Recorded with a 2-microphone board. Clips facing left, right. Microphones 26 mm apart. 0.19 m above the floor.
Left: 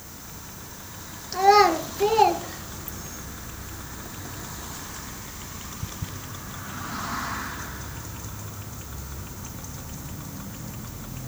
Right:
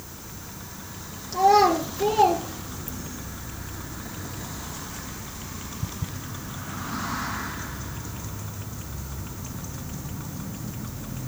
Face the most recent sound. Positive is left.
turn(degrees=30)  # may be behind; listen again after turning